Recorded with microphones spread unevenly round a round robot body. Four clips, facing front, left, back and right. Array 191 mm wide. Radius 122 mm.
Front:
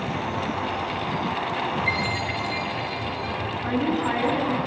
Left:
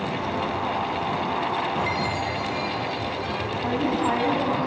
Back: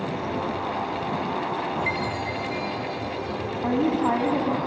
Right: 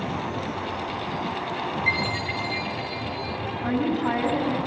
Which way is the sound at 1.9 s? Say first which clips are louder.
Left 2 dB, front 1 dB; 125° right.